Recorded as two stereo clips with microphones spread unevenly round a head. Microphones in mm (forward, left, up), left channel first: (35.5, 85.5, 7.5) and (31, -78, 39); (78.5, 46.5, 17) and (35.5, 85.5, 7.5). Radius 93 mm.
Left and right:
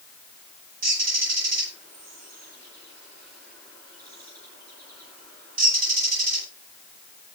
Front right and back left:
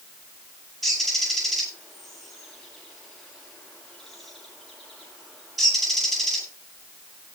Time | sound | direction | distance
0.8 | a bird | 135° right | 9.5 m